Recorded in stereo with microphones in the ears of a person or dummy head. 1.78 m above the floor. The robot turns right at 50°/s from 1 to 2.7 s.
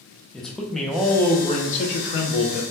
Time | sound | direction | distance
0.3 | a man speaking | 5° left | 0.6 m